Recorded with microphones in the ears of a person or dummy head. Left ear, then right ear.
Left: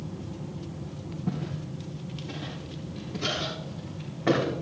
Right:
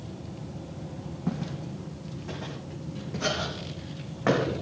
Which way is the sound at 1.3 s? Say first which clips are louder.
Right 1 dB; 60° right (ahead or behind).